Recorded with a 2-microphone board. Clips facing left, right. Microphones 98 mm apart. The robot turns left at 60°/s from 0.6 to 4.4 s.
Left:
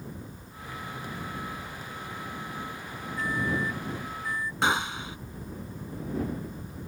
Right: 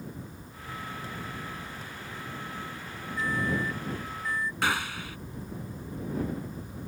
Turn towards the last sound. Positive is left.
turn(degrees=20)  # may be behind; listen again after turning